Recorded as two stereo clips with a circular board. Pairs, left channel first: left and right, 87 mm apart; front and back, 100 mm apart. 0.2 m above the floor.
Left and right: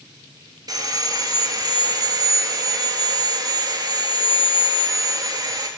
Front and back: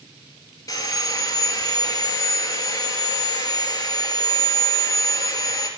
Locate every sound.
0.7 s sawing: 50° right, 1.8 m